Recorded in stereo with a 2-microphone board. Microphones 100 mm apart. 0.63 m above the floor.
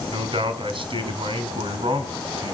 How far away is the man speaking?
About 3 m.